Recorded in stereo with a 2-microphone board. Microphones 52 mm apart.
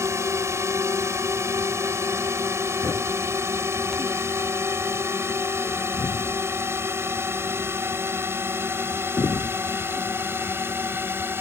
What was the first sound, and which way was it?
A drone, 60° right (ahead or behind).